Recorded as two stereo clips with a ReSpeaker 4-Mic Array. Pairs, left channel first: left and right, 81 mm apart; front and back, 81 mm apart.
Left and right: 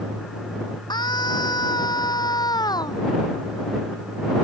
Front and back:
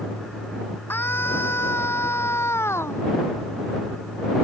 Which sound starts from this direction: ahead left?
A scream, at 0.9 s.